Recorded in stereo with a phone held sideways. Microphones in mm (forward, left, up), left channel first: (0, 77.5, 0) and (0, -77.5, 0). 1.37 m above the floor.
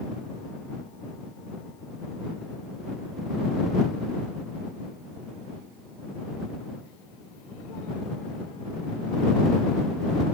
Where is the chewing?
No chewing in this recording.